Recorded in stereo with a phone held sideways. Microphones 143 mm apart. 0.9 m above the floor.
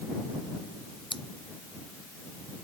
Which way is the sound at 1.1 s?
35° left (ahead or behind).